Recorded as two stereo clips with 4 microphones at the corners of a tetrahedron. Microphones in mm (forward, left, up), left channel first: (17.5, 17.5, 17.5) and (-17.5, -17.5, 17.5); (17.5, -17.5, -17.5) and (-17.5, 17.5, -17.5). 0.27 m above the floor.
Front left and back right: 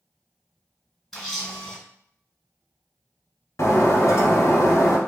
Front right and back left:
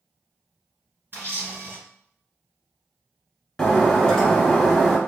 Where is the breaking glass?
35° left, 0.8 m.